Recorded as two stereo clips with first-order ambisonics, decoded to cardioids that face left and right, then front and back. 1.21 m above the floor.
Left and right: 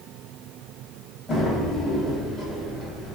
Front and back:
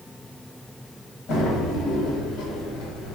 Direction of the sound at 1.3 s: 20° left.